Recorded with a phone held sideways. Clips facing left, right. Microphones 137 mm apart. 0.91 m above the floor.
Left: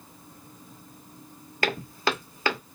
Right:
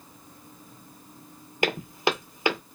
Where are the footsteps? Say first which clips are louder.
Right 2 dB; 20° right (ahead or behind), 0.9 m.